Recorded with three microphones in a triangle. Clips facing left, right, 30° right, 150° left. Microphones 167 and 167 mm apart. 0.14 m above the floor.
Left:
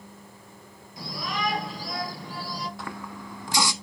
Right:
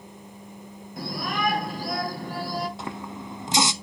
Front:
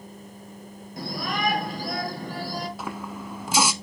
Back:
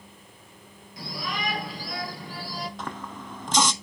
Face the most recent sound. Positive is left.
turn(degrees=-100)